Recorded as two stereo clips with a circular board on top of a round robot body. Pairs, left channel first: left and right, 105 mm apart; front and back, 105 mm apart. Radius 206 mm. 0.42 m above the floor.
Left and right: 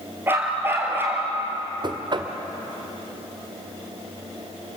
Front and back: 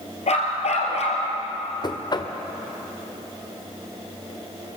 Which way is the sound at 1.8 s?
45° right.